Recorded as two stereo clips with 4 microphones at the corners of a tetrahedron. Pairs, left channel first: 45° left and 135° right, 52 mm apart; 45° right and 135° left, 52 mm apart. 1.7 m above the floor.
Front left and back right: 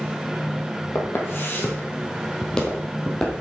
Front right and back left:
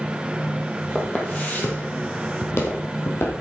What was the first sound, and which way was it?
Footsteps, 20° left.